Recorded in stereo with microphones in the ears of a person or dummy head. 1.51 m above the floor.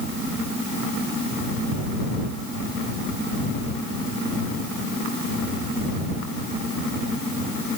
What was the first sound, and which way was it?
Only background noise.